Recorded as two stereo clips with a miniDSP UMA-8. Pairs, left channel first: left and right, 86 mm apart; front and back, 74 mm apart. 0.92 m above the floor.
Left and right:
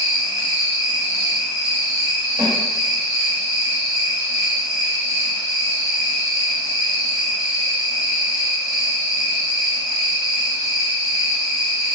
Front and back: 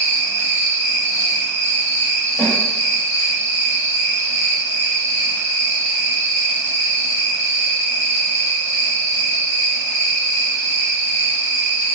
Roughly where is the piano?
I don't hear a piano.